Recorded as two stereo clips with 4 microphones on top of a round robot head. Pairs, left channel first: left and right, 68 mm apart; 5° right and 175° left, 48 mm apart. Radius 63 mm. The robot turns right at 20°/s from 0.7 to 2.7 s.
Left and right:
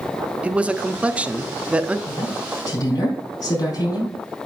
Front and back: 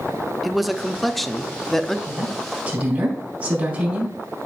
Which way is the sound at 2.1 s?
110° left.